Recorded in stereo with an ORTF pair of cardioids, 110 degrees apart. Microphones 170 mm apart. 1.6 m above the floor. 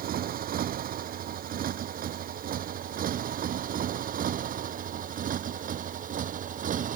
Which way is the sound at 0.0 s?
60° right.